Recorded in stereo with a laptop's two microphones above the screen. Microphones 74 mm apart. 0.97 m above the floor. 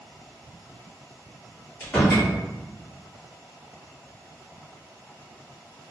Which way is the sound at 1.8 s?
15° left (ahead or behind).